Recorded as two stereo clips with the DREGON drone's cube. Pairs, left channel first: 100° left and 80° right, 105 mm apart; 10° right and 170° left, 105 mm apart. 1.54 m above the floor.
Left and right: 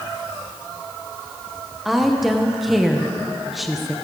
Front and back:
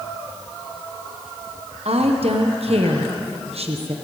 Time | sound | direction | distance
1.9 | a woman speaking | 170° right | 1.1 m